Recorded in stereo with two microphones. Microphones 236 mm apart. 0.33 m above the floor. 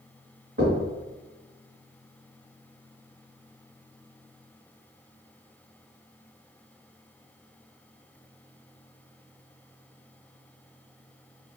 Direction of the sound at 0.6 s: 65° right (ahead or behind).